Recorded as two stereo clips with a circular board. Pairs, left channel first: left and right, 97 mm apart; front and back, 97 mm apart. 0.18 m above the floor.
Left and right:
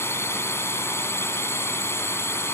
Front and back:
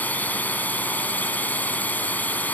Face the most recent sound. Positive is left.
turn(degrees=55)